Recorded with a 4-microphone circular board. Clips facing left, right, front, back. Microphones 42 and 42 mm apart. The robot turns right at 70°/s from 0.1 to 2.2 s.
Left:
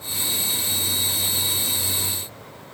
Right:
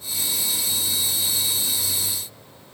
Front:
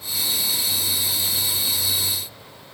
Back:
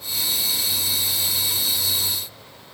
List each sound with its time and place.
Only background noise.